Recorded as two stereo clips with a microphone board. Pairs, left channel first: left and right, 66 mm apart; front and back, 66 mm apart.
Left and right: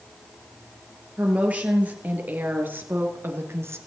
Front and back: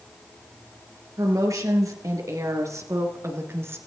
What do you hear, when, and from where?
1.2 s a woman speaking: 160° right, 3.5 m; by 3.8 s 135° right, 2 m